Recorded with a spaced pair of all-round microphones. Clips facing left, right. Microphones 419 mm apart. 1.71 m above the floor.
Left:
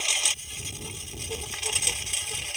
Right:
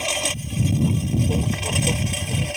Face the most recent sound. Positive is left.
turn(degrees=-75)  # may be behind; listen again after turning